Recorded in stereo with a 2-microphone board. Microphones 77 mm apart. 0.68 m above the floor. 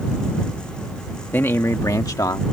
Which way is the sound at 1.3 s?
25° left (ahead or behind).